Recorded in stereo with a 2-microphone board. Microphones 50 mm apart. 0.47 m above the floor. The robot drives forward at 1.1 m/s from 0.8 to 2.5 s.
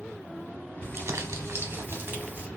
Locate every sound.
0.8 s crumpling: 50° right (ahead or behind), 1.0 m; by 2.5 s 30° right (ahead or behind), 1.6 m